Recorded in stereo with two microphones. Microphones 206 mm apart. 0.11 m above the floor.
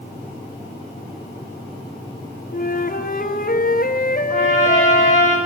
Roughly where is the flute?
Left.